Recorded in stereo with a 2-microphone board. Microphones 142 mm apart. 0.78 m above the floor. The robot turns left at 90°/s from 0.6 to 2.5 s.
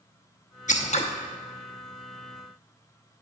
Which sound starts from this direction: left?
Scissors, at 0.7 s.